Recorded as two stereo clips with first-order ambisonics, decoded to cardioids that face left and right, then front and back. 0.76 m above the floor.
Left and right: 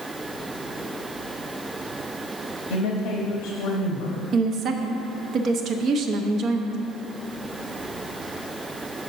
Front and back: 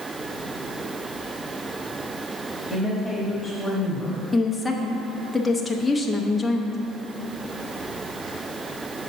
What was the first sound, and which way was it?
A woman speaking, 95° left.